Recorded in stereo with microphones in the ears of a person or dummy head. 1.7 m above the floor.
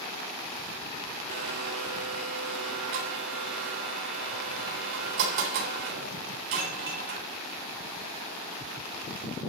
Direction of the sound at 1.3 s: 65° right (ahead or behind).